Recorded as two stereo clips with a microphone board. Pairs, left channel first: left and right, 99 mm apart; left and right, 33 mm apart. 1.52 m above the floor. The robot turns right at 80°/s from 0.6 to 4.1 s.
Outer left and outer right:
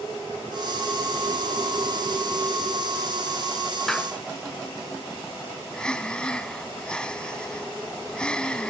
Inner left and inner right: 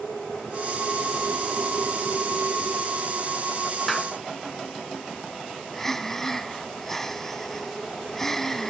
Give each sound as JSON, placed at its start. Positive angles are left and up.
{"t": 3.9, "sound": "a clap", "side_deg": 5}
{"t": 5.7, "sound": "breathing", "side_deg": 10}